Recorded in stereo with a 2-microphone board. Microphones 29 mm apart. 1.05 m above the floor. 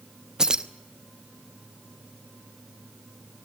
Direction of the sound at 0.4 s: 25° right (ahead or behind).